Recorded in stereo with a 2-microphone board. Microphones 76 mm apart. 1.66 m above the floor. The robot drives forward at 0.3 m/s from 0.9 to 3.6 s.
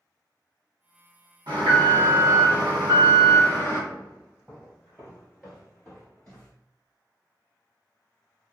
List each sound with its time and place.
1.5 s an alarm: 80° right, 1.5 m; by 3.8 s 60° right (ahead or behind), 1.7 m
3.9 s footsteps: 15° right (ahead or behind), 1.7 m; by 6.5 s 5° left (ahead or behind), 1.8 m